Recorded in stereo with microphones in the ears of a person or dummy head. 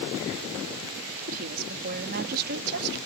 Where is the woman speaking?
50° right (ahead or behind); by 3.0 s 60° right (ahead or behind).